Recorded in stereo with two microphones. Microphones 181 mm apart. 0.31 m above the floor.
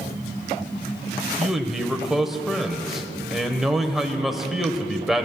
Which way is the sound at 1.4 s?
Centre (ahead or behind).